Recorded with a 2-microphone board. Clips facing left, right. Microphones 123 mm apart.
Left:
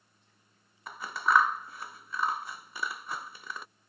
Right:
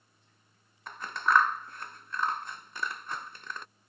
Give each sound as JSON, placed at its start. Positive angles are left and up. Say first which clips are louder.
{"t": 0.9, "sound": "scissors", "louder": "even", "side_deg": 5}